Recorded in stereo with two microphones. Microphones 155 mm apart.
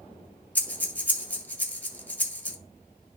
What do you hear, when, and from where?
0.6 s breathing: 10° left (ahead or behind), 0.9 m